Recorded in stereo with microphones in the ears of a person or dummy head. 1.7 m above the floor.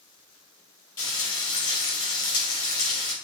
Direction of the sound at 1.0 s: 20° left (ahead or behind).